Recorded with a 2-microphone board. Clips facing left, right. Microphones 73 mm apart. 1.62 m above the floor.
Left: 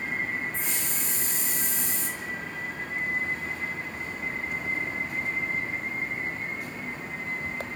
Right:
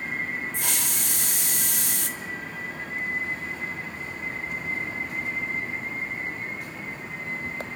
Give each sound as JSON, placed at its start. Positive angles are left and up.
{"t": 0.5, "sound": "a hiss", "side_deg": -70, "distance_m": 0.5}